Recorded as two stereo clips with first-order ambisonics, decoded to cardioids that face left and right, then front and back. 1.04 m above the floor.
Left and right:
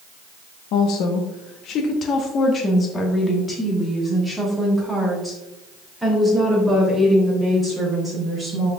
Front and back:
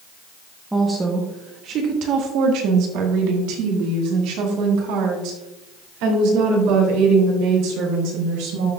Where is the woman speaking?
95° left, 0.8 m; by 8.7 s 175° right, 4 m.